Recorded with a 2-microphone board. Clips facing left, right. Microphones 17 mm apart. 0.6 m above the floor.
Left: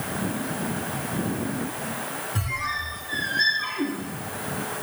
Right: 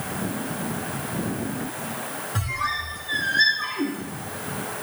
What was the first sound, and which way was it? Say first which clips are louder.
A squeak: right 3 dB; 35° right (ahead or behind).